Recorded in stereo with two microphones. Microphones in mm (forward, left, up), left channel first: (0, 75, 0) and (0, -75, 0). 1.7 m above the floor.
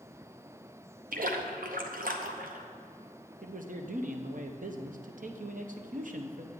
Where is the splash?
70° right (ahead or behind), 0.8 m.